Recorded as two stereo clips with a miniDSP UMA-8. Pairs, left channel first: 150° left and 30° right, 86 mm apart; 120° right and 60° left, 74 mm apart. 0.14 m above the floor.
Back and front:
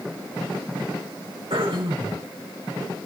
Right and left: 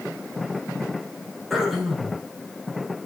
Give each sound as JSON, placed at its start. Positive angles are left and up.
{"t": 1.5, "sound": "throat clearing", "azimuth_deg": -30, "distance_m": 4.0}